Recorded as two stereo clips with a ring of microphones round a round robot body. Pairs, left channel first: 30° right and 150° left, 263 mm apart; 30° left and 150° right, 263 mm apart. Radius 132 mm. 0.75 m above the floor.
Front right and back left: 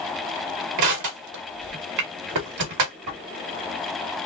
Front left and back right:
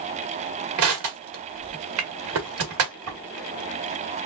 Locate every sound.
0.8 s crushing: 175° left, 1.3 m